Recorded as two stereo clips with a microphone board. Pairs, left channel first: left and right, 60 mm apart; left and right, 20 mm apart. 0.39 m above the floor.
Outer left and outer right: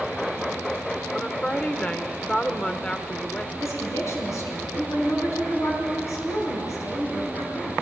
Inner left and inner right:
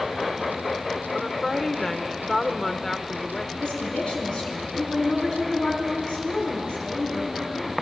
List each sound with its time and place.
1.1 s a woman speaking: 20° left (ahead or behind), 0.8 m
3.6 s a woman speaking: 55° left (ahead or behind), 5 m